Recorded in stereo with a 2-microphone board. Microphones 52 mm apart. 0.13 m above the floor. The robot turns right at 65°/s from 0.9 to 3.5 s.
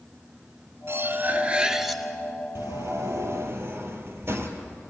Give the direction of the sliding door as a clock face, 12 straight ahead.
4 o'clock.